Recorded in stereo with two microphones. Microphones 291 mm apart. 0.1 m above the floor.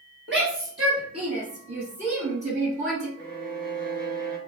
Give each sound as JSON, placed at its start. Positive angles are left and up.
{"t": 0.3, "sound": "a shout", "side_deg": -35, "distance_m": 1.6}
{"t": 3.2, "sound": "a violin", "side_deg": -35, "distance_m": 0.8}